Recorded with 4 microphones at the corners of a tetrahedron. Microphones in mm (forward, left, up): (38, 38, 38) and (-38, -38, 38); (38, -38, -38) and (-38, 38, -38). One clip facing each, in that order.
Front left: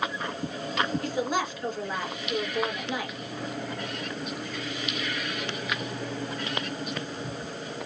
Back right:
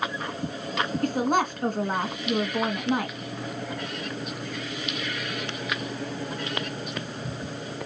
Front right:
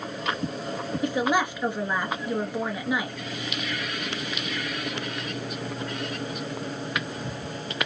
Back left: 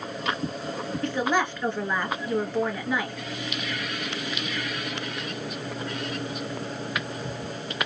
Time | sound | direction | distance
1.0 | a woman speaking | 120° right | 1.7 m